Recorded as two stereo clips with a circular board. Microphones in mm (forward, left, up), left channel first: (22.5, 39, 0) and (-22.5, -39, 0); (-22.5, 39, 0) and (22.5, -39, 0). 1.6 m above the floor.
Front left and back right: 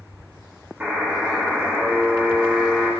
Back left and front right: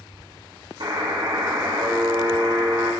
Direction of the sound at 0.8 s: 50° right.